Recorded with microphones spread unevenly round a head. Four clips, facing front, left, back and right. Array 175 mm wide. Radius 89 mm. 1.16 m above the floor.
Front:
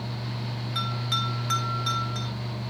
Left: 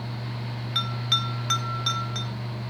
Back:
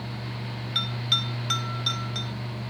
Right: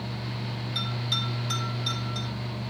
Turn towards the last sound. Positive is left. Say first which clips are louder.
# left 5 dB, front 3 dB
turn(degrees=80)